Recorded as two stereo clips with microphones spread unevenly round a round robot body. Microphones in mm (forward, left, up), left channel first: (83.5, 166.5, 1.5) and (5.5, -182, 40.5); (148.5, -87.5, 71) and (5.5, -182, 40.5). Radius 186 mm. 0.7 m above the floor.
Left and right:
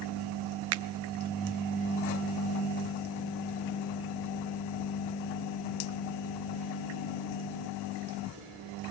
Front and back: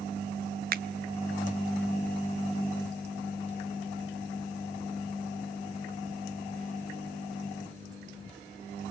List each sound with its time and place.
0.7 s a finger snap: 155° right, 0.5 m